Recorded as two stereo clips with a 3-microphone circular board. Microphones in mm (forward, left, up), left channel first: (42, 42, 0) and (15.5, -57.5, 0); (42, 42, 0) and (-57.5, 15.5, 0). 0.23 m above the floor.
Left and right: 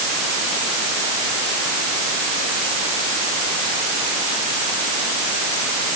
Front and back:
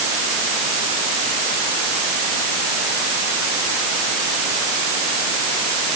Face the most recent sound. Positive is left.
No sound to turn to.